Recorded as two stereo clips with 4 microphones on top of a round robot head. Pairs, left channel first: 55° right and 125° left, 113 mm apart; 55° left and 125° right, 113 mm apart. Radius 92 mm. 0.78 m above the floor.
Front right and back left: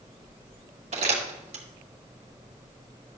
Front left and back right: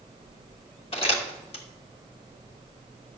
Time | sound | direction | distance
0.9 | crumpling | 95° left | 1.9 m